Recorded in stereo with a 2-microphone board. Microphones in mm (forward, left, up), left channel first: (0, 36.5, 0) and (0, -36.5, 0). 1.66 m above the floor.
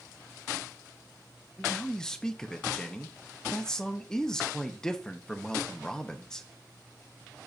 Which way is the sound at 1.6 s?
10° left (ahead or behind).